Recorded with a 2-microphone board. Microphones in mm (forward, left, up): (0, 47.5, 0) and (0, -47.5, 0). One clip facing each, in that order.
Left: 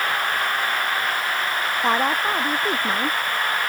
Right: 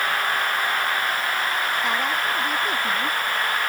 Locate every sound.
1.8 s a woman speaking: 40° left (ahead or behind)